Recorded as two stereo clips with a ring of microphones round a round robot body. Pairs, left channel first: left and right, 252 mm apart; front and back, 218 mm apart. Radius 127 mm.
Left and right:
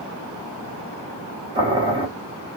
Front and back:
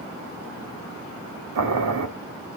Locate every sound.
1.6 s boiling: 165° right, 0.8 m